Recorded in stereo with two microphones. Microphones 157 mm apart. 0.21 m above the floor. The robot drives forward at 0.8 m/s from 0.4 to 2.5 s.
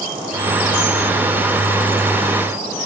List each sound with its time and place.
Only background noise.